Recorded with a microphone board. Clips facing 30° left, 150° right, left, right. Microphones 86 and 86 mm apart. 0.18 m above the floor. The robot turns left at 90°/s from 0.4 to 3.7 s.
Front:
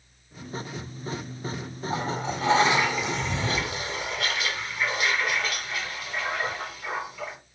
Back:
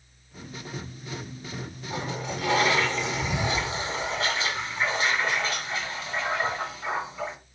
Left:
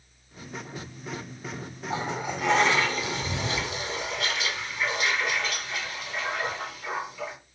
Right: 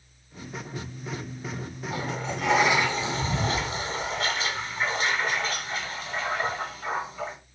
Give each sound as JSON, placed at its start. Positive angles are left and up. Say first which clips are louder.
{"t": 1.9, "sound": "a toilet flushing", "louder": "front 3 dB, left 2 dB", "azimuth_deg": 50, "distance_m": 1.7}